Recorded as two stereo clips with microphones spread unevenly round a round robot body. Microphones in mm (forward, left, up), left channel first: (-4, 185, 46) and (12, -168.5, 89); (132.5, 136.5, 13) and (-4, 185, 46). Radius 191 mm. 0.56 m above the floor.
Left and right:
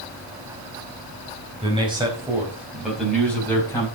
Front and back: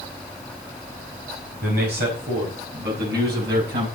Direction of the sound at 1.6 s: 165° right.